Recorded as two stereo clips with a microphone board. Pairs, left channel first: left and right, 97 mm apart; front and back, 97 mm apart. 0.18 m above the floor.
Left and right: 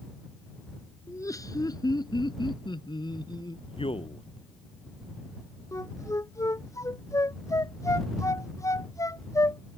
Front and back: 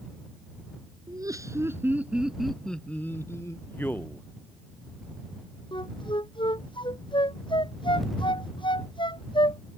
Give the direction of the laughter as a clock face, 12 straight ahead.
7 o'clock.